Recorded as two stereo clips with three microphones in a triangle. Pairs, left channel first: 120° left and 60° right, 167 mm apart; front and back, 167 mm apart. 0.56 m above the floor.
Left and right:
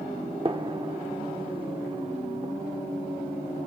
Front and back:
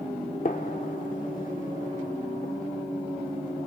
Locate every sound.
0.5 s a gunshot: 10° right, 0.9 m